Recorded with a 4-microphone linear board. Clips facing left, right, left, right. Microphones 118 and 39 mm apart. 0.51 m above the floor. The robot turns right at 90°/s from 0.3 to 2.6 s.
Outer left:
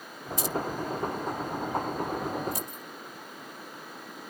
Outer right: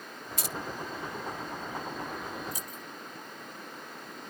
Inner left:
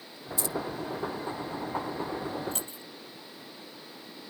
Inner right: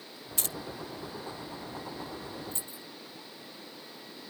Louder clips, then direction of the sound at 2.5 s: Outer left 5 dB, inner left 5 dB; 65° left (ahead or behind).